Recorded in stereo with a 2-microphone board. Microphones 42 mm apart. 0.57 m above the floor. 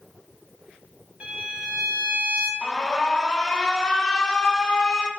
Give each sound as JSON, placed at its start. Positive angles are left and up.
{"t": 1.2, "sound": "a violin", "side_deg": -25, "distance_m": 2.5}
{"t": 2.6, "sound": "an alarm", "side_deg": 15, "distance_m": 0.9}